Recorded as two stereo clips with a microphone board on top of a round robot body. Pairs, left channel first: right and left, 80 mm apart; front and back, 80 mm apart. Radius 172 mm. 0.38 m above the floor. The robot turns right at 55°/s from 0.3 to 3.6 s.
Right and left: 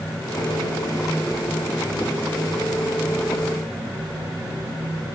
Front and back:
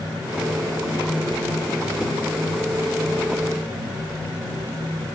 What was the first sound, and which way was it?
Only background noise.